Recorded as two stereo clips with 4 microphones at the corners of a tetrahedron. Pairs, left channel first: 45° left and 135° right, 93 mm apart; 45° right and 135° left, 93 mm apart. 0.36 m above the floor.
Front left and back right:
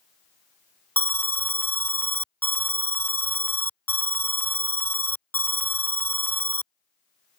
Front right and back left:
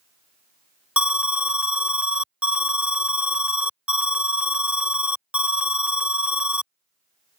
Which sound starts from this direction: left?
An alarm, at 1.0 s.